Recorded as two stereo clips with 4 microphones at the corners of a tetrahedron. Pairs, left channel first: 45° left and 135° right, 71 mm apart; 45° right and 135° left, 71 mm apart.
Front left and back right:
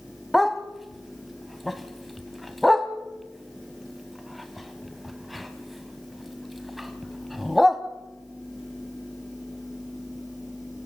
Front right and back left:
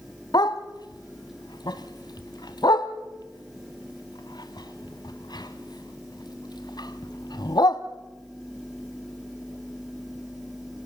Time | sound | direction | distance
0.3 | a dog barking | 45° right | 1.3 m